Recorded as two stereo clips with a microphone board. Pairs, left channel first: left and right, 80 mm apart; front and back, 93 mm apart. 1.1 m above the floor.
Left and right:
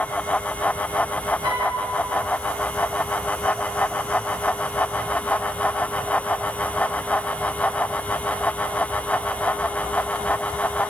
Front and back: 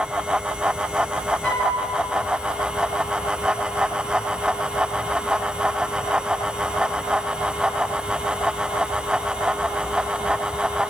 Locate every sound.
1.4 s a flute: 70° right, 1.8 m